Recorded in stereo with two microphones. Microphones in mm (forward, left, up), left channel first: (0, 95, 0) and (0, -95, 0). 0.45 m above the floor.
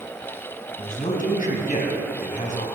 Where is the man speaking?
45° left (ahead or behind), 3 m.